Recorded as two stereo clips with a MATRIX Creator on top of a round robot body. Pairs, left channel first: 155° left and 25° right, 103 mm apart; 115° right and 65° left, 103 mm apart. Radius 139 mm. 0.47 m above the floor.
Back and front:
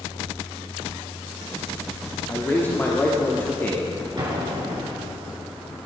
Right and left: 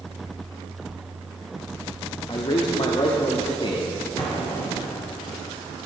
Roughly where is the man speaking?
Behind right.